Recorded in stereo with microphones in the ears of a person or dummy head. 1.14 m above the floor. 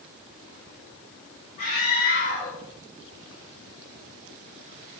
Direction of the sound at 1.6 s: 50° left (ahead or behind).